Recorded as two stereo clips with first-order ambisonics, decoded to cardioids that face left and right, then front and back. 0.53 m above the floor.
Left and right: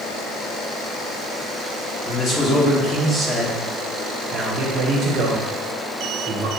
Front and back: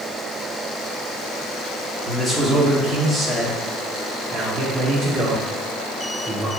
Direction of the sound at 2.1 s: 80° left.